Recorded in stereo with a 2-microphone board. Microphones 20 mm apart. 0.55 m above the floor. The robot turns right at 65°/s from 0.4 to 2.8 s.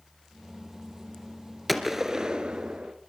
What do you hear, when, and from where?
1.7 s a gunshot: straight behind, 2 m; by 2.9 s 110° right, 2 m